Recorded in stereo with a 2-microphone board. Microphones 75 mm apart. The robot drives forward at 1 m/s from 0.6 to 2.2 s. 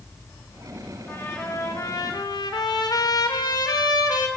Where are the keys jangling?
I don't hear keys jangling.